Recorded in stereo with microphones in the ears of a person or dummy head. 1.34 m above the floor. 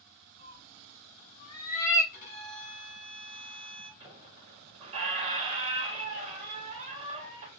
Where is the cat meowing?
50° left (ahead or behind), 2.5 m; by 2.0 s 25° left (ahead or behind), 3 m.